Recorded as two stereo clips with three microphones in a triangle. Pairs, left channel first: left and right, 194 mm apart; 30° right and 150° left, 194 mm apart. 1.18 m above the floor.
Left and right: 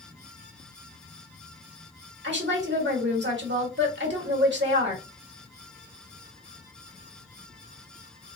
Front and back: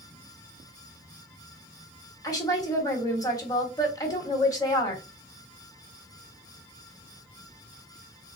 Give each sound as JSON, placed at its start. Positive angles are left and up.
{"t": 2.2, "sound": "a woman speaking", "azimuth_deg": -100, "distance_m": 1.2}